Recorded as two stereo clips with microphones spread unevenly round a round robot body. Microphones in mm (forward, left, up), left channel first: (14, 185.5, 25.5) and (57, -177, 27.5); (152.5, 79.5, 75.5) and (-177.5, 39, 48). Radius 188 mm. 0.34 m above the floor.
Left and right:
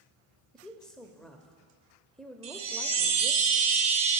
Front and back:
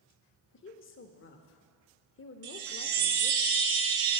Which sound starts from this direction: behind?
A chime, at 2.4 s.